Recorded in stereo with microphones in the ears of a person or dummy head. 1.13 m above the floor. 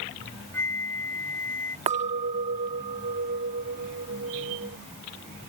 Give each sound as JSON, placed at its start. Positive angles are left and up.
{"t": 0.5, "sound": "a flute", "side_deg": 10}
{"t": 1.9, "sound": "a clink", "side_deg": -30}